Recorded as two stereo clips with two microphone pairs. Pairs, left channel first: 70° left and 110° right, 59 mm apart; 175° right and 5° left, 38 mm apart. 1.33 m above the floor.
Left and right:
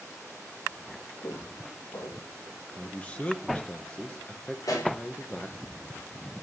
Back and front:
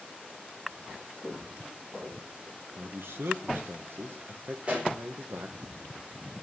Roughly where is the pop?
Ahead left.